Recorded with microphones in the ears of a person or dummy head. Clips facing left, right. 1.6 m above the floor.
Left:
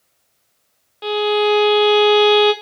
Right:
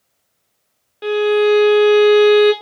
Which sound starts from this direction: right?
A violin, at 1.0 s.